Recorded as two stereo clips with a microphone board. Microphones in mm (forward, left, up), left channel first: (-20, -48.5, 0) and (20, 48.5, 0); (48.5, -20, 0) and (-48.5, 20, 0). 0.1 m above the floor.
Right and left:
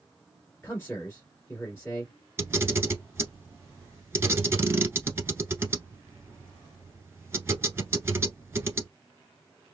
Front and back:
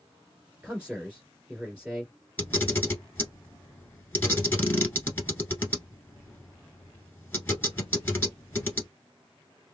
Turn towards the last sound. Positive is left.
turn(degrees=30)